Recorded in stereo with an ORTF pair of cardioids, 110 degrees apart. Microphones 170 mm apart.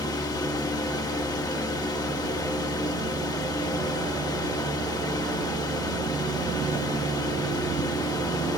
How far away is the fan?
About 1.4 m.